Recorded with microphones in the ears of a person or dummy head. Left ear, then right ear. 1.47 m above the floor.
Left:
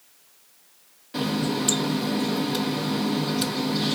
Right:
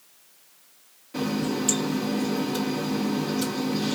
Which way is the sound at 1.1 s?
20° left (ahead or behind).